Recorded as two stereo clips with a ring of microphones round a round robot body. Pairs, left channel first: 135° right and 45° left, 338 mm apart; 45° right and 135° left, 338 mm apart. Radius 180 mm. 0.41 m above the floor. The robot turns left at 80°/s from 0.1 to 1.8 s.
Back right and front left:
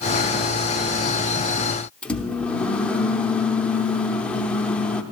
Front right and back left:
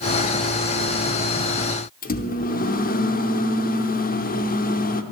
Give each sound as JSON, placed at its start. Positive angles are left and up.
{"t": 2.0, "sound": "a microwave", "azimuth_deg": -50, "distance_m": 0.8}